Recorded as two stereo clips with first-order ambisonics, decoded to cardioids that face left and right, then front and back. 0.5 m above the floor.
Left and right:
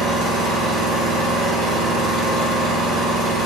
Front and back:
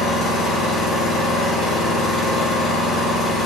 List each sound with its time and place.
0.0 s an engine running: 70° right, 1.7 m